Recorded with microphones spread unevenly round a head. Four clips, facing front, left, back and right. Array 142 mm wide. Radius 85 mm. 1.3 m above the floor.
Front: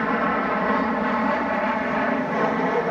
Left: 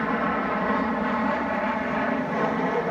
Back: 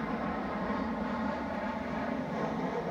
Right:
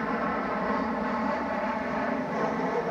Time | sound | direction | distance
0.0 | an aircraft | 10° left | ?